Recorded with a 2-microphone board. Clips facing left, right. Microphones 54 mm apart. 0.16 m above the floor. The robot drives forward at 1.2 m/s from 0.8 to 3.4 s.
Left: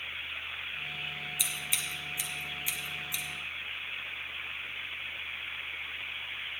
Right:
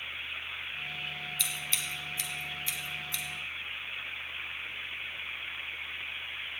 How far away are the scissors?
About 2.0 m.